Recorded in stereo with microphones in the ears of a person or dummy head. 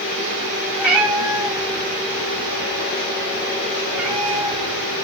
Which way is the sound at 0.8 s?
15° right (ahead or behind).